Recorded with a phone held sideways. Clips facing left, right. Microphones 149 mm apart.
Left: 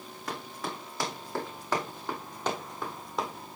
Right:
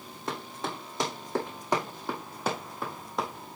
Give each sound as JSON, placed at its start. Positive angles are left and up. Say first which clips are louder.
{"t": 0.3, "sound": "running footsteps", "louder": "right 2 dB", "side_deg": -25, "distance_m": 3.0}